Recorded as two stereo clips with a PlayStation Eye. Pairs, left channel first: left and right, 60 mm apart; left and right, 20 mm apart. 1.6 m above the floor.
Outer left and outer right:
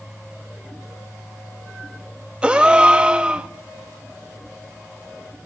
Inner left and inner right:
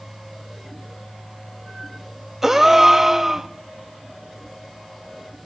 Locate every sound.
2.4 s a gasp: 15° right (ahead or behind), 1.2 m